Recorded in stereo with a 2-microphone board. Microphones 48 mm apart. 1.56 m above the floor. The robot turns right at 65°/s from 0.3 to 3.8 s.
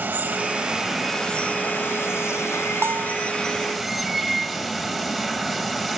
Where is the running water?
50° right, 1.8 m; by 6.0 s straight behind, 1.8 m.